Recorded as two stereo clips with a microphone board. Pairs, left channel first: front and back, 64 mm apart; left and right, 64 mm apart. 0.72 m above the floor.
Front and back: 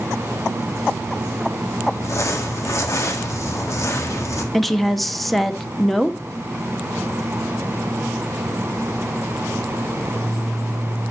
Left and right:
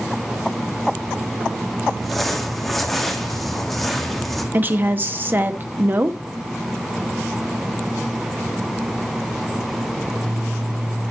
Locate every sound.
1.9 s crumpling: straight ahead, 1.5 m
4.5 s a woman speaking: 85° right, 0.7 m